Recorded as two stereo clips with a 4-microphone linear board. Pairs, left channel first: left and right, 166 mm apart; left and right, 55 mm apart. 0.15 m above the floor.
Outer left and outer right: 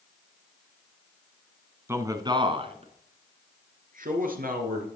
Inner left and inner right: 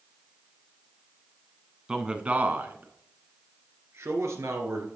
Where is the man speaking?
15° right (ahead or behind), 1.1 m; by 4.9 s 65° right (ahead or behind), 2.5 m.